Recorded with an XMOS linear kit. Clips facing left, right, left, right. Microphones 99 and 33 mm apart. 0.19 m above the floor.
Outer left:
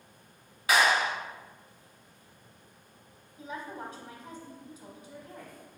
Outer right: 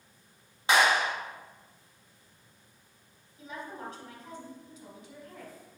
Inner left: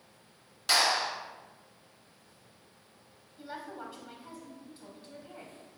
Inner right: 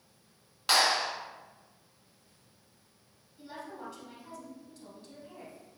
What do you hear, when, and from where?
0.7 s a clap: 25° right (ahead or behind), 1.7 m
3.4 s a woman speaking: 15° left (ahead or behind), 1.0 m